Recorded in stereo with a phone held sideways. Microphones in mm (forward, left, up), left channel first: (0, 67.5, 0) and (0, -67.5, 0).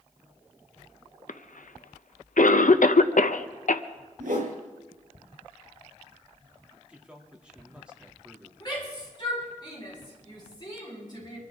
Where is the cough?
75° left (ahead or behind), 0.6 m.